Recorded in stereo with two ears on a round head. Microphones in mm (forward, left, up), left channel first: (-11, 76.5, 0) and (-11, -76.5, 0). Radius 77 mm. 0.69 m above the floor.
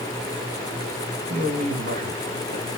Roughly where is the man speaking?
Right.